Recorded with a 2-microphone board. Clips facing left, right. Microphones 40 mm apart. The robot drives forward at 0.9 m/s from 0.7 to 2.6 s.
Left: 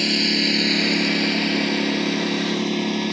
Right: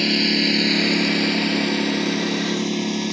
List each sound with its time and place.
0.0 s a lawn mower: 5° right (ahead or behind); by 3.1 s 15° left (ahead or behind)